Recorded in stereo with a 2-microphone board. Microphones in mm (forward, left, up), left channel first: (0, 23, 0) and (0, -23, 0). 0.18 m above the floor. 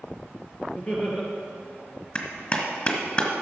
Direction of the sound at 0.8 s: 30° left (ahead or behind).